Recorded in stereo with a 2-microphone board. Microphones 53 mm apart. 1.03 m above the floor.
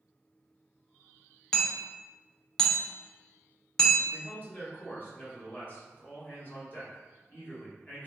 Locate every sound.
1.5 s hammering: 10° left (ahead or behind), 0.6 m
4.1 s a man speaking: 35° left (ahead or behind), 1.2 m